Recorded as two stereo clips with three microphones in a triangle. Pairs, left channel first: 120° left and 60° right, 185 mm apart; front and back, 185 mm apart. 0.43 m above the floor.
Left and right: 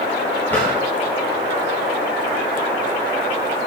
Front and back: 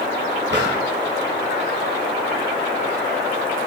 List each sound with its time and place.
0.5 s a drawer: 160° right, 2 m